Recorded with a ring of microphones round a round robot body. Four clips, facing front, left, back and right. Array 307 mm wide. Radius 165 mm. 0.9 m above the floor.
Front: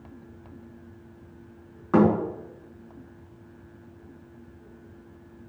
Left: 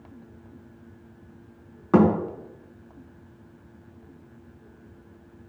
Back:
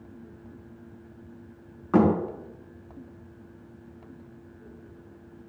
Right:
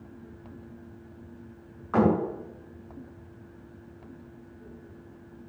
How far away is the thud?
About 5.5 m.